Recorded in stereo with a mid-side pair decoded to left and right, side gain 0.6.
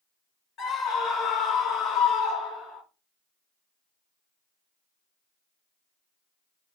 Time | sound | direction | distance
0.6 | a scream | 50° left | 1.8 m